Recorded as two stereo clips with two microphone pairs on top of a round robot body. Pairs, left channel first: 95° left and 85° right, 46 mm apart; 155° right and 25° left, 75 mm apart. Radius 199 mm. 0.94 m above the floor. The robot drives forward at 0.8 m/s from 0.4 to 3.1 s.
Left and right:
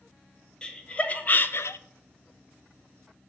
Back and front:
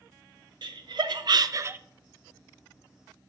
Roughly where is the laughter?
Ahead.